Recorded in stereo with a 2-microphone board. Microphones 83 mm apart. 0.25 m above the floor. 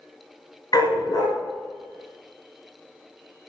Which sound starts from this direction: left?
A dog barking, at 0.7 s.